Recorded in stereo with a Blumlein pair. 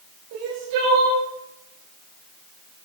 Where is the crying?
50° right, 5.5 m.